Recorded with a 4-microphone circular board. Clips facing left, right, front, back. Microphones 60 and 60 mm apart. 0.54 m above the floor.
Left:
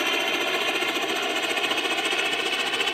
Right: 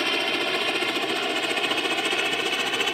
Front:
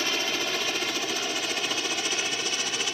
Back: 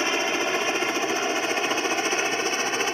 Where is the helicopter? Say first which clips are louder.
Even, back 5 dB; 170° left; by 2.9 s 175° right.